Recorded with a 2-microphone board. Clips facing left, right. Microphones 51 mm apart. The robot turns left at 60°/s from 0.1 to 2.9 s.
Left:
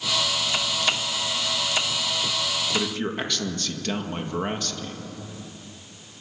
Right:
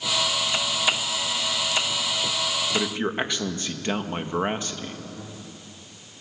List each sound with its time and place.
2.7 s a man speaking: 15° right (ahead or behind), 1.7 m; by 5.0 s 20° right (ahead or behind), 1.7 m